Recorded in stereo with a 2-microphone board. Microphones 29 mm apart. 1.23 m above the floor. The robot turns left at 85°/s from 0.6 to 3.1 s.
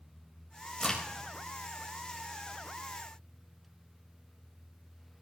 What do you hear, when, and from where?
0.8 s a crack: 25° left (ahead or behind), 4.5 m; by 1.0 s 10° left (ahead or behind), 4.5 m